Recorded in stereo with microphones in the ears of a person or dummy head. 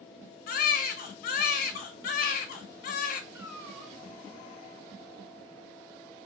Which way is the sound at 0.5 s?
40° left (ahead or behind).